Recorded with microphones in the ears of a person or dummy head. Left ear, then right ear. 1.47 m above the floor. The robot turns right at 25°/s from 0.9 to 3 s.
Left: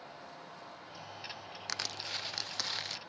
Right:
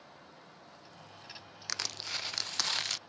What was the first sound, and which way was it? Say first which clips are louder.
Crushing: right 2 dB; straight behind.